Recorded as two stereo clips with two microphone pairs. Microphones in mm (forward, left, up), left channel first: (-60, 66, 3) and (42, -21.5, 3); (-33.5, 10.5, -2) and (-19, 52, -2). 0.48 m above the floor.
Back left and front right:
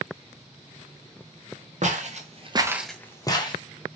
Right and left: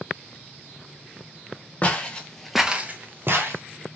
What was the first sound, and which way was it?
Footsteps, 55° right.